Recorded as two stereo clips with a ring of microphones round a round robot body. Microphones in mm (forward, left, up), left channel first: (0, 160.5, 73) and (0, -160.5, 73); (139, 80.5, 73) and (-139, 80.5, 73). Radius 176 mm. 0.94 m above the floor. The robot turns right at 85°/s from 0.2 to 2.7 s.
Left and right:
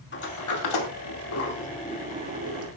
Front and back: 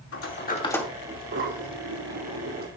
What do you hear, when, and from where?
0.1 s a sliding door: 35° left, 2.5 m; by 2.7 s 115° right, 2.5 m